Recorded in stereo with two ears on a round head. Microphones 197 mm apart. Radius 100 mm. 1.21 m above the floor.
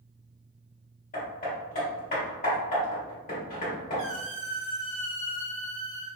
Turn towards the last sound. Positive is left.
turn(degrees=30)  # may be behind; listen again after turning